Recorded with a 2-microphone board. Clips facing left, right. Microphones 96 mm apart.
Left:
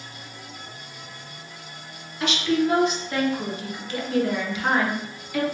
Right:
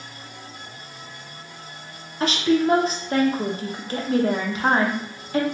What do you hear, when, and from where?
2.2 s a woman speaking: 40° right (ahead or behind), 0.5 m